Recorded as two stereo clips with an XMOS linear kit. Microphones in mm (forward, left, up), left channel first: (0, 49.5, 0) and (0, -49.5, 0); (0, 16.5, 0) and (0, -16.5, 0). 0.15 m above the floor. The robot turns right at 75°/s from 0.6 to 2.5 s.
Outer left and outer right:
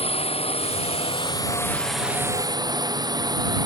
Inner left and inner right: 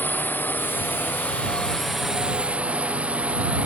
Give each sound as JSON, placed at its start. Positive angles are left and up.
{"t": 0.0, "sound": "a drone", "azimuth_deg": 80}